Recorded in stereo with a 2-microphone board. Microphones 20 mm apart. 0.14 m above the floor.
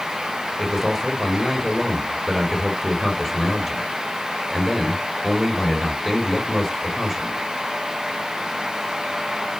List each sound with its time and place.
0.6 s a man speaking: 10° right (ahead or behind), 3 m